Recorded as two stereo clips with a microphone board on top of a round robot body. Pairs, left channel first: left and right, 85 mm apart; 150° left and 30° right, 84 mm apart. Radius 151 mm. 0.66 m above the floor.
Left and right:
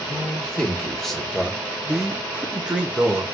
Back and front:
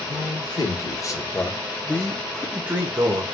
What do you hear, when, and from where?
0.1 s a man speaking: 170° left, 1.6 m; by 3.2 s 25° right, 1.1 m